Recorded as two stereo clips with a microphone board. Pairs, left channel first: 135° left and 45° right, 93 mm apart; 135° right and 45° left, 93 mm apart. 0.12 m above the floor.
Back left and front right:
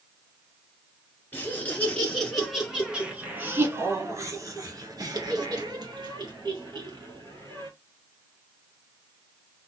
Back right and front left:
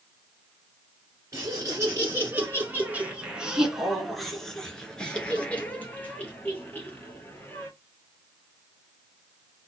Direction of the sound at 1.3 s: 75° left.